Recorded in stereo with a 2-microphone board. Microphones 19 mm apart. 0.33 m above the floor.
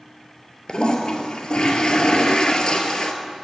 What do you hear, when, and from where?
0.7 s a toilet flushing: 50° left (ahead or behind), 0.9 m